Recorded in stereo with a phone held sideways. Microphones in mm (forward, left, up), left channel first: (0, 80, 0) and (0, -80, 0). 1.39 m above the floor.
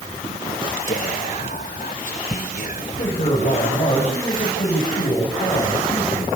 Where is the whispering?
55° left (ahead or behind), 0.9 m.